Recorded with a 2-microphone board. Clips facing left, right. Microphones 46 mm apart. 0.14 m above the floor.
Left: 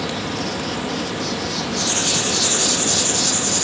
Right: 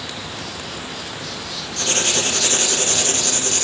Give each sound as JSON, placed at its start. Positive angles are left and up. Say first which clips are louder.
{"t": 0.0, "sound": "an insect", "louder": "left 6 dB", "side_deg": 80, "distance_m": 0.9}
{"t": 1.8, "sound": "writing", "louder": "right 4 dB", "side_deg": -55, "distance_m": 1.5}